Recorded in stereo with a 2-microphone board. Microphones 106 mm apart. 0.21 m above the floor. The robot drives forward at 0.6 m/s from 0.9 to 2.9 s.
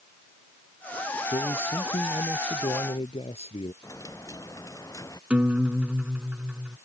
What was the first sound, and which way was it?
A man speaking, 70° left (ahead or behind).